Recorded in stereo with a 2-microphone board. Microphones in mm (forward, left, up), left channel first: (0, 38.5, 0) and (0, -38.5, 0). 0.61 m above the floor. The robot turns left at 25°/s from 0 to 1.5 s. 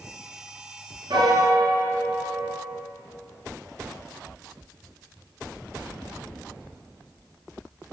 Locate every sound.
1.1 s a piano: 75° right (ahead or behind), 1.8 m; by 2.8 s 80° right, 1.8 m